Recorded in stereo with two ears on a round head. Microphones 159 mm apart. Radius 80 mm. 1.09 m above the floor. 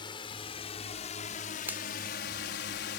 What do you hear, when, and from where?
0.0 s a drone: 25° left (ahead or behind); by 3.0 s 65° left (ahead or behind)
1.7 s a finger snap: 10° right (ahead or behind)